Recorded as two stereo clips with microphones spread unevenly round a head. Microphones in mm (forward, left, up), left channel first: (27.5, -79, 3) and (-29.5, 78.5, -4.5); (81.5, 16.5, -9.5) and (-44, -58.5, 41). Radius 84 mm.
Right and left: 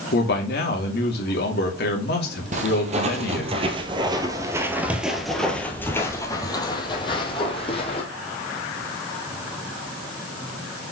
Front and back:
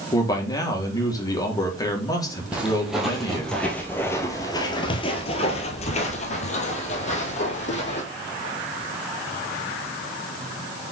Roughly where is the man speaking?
Ahead right.